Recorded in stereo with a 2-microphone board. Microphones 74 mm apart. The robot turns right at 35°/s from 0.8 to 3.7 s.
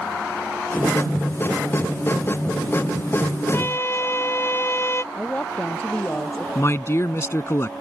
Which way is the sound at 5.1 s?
20° left (ahead or behind).